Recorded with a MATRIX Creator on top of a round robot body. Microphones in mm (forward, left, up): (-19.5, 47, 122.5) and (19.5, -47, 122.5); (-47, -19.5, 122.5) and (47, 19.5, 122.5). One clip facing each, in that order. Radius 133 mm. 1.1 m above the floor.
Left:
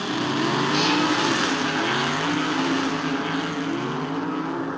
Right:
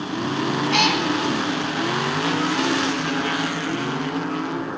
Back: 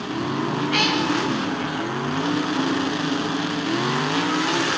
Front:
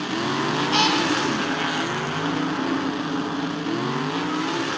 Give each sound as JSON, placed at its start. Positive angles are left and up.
{"t": 0.7, "sound": "a cat meowing", "azimuth_deg": -40, "distance_m": 1.6}